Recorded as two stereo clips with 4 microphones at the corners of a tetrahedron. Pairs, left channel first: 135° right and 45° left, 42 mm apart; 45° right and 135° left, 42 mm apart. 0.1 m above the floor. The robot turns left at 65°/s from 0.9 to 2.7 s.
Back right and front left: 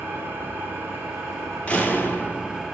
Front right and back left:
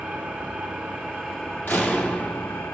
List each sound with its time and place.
0.0 s an engine running: 80° left, 2 m; by 2.8 s 35° right, 2 m
1.7 s a door slam: 75° right, 1.8 m; by 2.6 s 140° right, 1.8 m